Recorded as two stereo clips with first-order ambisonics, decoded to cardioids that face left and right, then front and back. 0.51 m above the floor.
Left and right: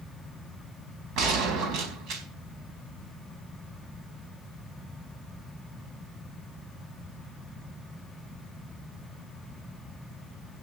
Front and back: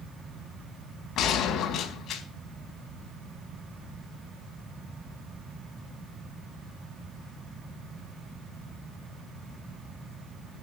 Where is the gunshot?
55° right, 4 m.